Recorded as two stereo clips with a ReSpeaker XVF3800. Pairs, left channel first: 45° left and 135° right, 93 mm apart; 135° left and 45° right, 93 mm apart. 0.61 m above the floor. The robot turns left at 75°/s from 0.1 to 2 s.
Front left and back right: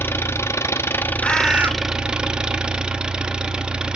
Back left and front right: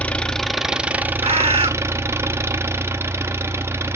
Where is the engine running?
75° left, 0.7 m; by 4.0 s 65° right, 0.7 m.